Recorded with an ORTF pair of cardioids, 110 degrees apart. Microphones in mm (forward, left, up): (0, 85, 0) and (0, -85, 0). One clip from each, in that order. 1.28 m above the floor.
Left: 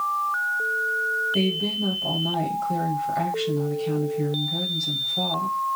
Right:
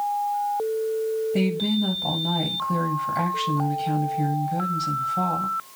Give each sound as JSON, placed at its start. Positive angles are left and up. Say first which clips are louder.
{"t": 1.3, "sound": "a woman speaking", "louder": "left 1 dB", "azimuth_deg": -15, "distance_m": 3.5}